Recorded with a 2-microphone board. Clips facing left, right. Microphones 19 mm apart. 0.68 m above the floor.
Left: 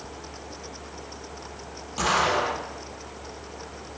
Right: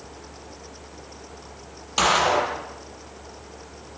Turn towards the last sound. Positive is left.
turn(degrees=-50)  # may be behind; listen again after turning